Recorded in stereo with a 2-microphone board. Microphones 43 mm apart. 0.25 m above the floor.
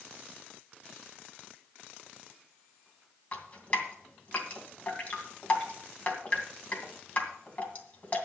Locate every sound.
3.3 s dripping: 35° left (ahead or behind), 2.5 m